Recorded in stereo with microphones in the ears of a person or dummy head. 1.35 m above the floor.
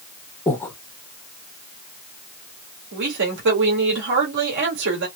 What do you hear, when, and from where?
0.5 s breathing: 10° left (ahead or behind), 0.7 m
2.9 s a woman speaking: 70° right (ahead or behind), 1.7 m